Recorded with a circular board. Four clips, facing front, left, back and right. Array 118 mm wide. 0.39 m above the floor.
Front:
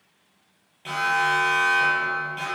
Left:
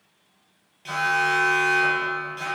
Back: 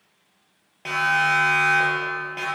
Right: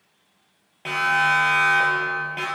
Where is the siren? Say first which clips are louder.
Right 2 dB, back 1 dB; 135° right, 10 m; by 2.5 s 125° right, 10 m.